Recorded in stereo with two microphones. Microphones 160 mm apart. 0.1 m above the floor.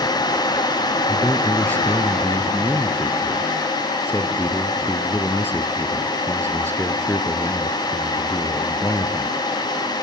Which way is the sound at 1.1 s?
10° left (ahead or behind).